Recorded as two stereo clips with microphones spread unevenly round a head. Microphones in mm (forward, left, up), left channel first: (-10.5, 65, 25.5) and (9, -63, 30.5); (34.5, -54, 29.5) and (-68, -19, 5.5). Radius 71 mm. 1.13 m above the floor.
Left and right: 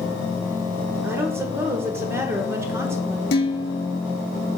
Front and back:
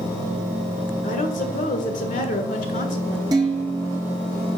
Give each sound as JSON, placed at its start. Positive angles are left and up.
{"t": 1.0, "sound": "a woman speaking", "azimuth_deg": -10, "distance_m": 1.4}
{"t": 3.3, "sound": "dishes clattering", "azimuth_deg": 95, "distance_m": 1.1}